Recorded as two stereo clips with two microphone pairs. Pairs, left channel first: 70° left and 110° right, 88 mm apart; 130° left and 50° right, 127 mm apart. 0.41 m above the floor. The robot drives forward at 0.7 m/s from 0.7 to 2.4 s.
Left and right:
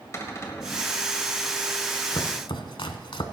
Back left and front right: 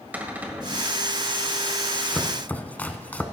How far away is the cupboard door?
About 1.7 m.